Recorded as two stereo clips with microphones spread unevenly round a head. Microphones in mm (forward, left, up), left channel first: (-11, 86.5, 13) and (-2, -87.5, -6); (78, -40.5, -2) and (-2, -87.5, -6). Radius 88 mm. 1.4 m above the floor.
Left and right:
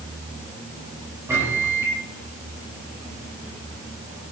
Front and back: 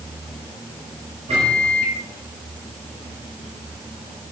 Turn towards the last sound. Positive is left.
turn(degrees=-165)